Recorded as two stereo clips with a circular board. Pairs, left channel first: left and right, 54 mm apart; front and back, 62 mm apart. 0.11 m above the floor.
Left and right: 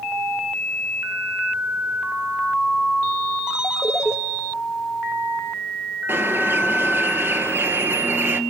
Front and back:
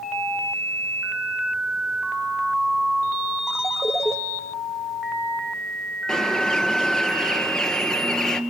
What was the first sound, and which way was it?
A ringtone, 15° right.